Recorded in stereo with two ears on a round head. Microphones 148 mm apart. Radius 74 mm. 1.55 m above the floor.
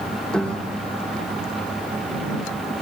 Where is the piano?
5° left (ahead or behind).